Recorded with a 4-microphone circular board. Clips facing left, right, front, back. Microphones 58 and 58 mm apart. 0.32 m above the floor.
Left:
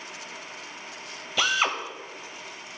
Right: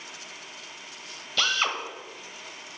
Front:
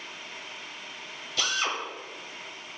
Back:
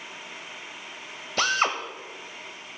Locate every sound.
1.4 s a drill: 165° left, 0.8 m